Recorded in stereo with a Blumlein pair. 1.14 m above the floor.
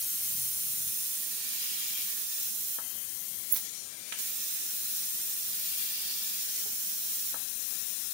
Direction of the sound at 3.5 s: 30° right.